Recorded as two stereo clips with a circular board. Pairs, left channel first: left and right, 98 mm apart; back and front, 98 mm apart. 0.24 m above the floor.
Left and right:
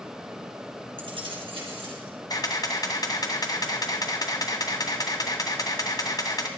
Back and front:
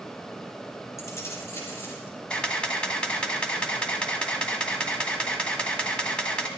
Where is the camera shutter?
105° left, 2 m.